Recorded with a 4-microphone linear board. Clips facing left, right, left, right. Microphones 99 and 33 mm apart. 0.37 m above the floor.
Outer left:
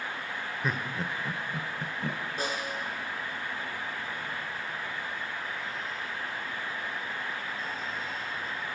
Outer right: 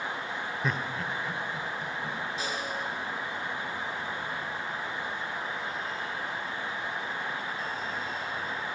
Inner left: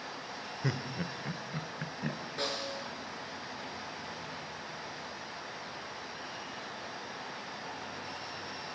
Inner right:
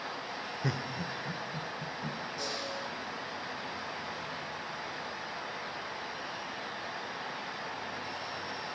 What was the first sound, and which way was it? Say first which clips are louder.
Laughter: even, even; centre (ahead or behind).